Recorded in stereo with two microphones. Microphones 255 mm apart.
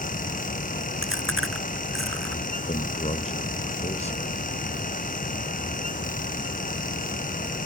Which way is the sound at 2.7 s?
25° left (ahead or behind).